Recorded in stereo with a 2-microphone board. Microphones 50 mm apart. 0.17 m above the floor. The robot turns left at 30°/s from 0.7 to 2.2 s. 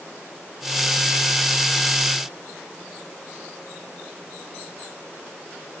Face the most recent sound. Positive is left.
No sound to turn to.